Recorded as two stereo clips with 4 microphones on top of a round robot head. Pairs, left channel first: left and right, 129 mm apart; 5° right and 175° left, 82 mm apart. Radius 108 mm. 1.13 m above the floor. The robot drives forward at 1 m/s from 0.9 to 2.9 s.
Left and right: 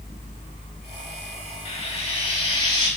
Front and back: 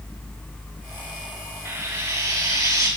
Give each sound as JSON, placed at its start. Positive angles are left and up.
{"t": 1.6, "sound": "frying", "azimuth_deg": 130, "distance_m": 3.5}